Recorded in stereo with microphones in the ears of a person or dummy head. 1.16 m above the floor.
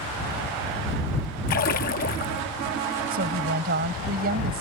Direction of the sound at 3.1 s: 50° right (ahead or behind).